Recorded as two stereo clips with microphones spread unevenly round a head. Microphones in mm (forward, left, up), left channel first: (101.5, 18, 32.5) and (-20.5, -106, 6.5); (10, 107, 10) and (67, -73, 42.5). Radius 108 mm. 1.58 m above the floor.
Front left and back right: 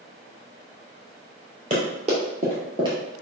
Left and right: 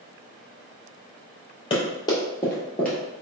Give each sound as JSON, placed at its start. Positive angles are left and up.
{"t": 1.7, "sound": "running footsteps", "azimuth_deg": 175, "distance_m": 1.9}